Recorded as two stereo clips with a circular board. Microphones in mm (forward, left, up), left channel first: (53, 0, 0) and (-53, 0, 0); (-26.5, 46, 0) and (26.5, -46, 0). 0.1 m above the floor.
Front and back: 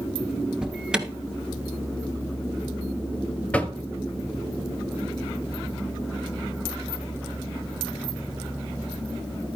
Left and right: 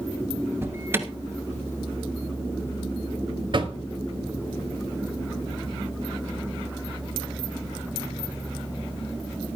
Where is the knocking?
75° right, 1.2 m.